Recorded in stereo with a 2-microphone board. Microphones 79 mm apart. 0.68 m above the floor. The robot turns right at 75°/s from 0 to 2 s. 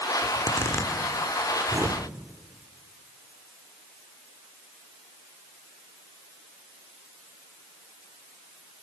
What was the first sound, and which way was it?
A zipper, 60° left (ahead or behind).